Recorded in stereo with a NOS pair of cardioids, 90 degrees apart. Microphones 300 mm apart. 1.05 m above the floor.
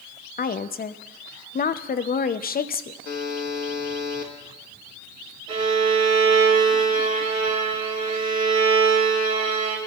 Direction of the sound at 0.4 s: 30° left.